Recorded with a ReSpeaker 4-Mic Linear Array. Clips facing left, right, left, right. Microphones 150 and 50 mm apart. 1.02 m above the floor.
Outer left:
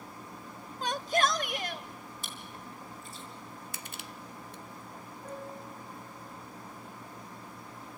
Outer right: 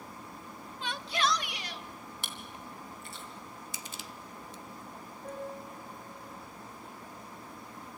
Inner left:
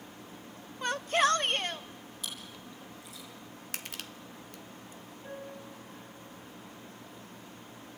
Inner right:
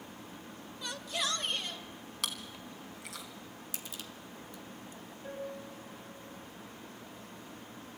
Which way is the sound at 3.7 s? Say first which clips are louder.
Even, inner left 6 dB; 60° left (ahead or behind).